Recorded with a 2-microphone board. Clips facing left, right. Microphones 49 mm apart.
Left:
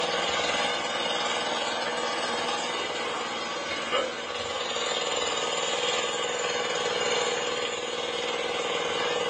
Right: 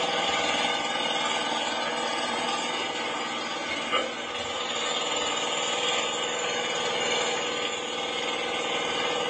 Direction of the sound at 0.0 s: 10° right (ahead or behind).